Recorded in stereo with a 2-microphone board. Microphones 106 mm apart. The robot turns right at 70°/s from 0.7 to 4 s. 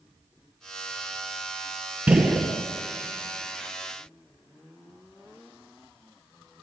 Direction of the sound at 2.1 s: 15° right (ahead or behind).